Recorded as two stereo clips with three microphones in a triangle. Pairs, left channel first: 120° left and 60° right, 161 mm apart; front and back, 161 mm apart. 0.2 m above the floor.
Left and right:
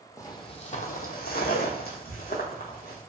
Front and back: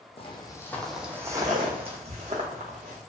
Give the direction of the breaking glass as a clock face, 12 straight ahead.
No breaking glass in this recording.